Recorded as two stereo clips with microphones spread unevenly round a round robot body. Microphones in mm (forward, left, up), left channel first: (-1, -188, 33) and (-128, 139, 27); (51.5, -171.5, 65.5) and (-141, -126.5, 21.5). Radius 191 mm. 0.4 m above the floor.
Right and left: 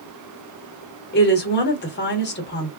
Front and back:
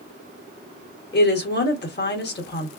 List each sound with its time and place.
1.1 s a woman speaking: 25° right, 1.1 m